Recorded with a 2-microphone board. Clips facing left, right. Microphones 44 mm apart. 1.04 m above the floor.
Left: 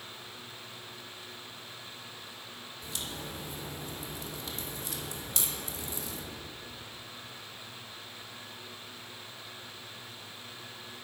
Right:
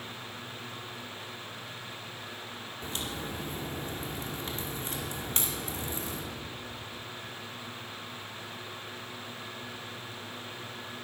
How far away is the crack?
About 2 m.